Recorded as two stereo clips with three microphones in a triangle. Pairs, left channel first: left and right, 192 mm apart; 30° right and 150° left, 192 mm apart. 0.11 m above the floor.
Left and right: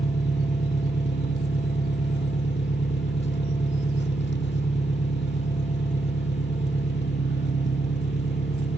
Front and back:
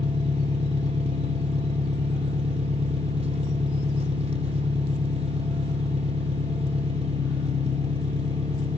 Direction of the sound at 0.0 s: 95° left.